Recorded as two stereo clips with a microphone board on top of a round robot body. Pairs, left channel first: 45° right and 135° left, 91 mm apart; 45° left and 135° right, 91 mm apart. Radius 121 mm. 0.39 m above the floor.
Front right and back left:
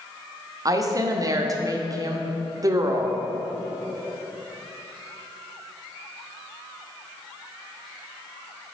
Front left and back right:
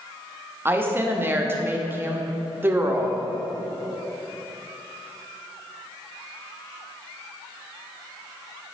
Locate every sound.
0.7 s a woman speaking: 170° left, 1.1 m